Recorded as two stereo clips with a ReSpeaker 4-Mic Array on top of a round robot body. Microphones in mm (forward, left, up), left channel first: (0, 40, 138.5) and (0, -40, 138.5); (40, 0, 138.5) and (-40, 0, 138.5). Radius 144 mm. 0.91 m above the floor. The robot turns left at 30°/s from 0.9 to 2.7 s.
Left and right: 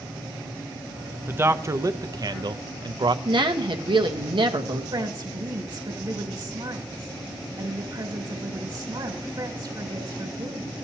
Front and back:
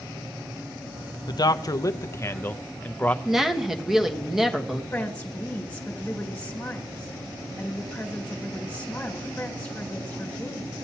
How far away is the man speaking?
About 0.6 m.